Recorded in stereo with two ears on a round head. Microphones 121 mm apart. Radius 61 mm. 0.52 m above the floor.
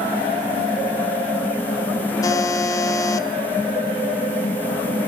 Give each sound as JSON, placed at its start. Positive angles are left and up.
{"t": 2.2, "sound": "a buzzer", "side_deg": 20, "distance_m": 0.6}